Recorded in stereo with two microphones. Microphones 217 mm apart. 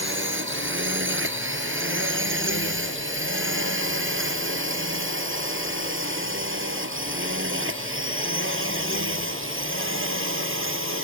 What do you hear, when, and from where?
0.0 s a drone: 60° right (ahead or behind)